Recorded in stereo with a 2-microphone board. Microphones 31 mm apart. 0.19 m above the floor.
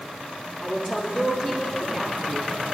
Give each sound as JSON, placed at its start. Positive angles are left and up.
{"t": 0.6, "sound": "a woman speaking", "side_deg": 25, "distance_m": 5.0}